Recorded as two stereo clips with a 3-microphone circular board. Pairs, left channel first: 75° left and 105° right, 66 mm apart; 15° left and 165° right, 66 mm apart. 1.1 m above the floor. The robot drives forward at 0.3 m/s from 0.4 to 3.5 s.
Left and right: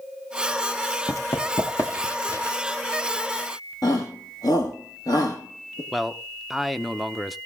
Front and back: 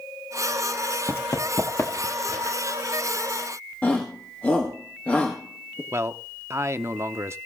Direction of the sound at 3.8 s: 80° left.